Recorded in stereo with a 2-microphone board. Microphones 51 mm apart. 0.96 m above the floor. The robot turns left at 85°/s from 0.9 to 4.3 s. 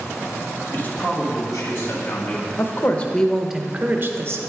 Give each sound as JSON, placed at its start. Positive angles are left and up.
{"t": 0.7, "sound": "a man speaking", "azimuth_deg": 145, "distance_m": 1.4}
{"t": 2.6, "sound": "a woman speaking", "azimuth_deg": 65, "distance_m": 0.7}